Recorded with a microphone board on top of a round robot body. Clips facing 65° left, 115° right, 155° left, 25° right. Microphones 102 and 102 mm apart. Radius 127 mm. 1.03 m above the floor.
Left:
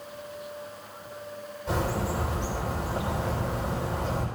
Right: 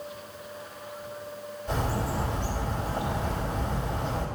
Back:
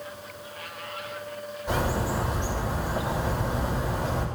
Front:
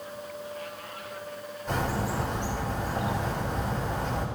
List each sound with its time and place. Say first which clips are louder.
1.7 s a bird: left 1 dB, back 2 dB; 80° left, 3.5 m